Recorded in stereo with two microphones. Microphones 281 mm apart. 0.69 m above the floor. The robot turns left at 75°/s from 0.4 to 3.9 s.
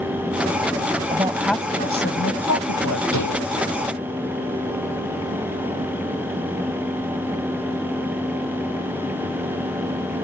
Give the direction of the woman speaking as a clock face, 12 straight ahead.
5 o'clock.